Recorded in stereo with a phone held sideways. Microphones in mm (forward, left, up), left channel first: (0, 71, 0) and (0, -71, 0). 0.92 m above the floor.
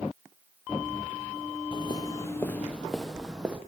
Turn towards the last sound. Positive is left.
turn(degrees=-10)  # may be behind; listen again after turning